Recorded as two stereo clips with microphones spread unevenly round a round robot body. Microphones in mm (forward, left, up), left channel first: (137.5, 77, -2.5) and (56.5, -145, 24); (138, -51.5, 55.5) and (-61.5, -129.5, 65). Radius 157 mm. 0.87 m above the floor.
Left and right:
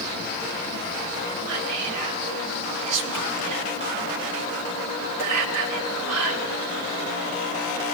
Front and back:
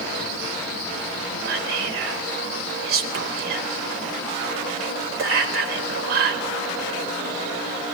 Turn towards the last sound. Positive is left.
turn(degrees=-140)